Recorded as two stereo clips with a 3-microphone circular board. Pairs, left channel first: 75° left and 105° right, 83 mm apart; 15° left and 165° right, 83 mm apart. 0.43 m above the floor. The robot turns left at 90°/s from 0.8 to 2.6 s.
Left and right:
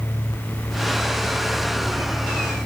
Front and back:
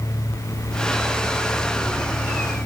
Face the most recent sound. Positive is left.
No sound to turn to.